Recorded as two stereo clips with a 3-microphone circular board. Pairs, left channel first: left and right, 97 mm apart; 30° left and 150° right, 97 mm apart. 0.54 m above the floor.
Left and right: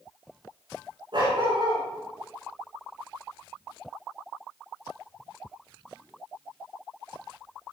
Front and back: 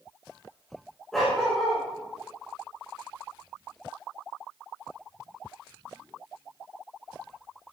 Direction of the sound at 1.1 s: 55° right.